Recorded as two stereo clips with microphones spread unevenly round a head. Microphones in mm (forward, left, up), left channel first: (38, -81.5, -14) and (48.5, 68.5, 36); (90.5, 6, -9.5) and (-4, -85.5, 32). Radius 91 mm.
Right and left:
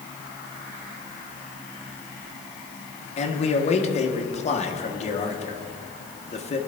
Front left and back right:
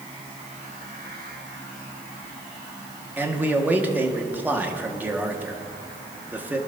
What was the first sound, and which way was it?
A man speaking, 55° right.